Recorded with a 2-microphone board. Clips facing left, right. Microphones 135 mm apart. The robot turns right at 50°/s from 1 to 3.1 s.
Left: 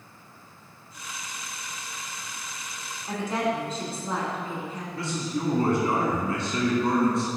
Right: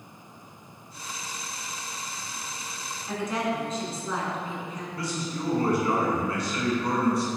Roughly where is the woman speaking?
Left.